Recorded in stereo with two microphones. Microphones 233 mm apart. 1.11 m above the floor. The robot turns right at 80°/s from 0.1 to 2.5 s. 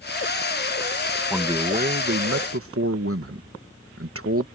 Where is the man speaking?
Straight behind; by 4.5 s 85° right.